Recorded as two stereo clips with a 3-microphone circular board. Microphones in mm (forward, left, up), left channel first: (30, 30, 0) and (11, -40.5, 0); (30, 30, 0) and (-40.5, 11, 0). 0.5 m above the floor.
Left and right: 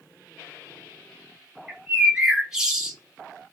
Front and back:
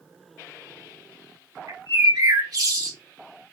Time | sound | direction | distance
1.7 | a bird | 175° left | 1.0 m